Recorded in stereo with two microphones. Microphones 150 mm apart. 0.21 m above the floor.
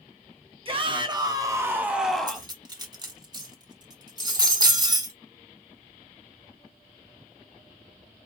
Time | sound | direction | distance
0.7 | a shout | 35° right (ahead or behind) | 2 m
2.3 | cutlery clinking | 25° right (ahead or behind) | 1.4 m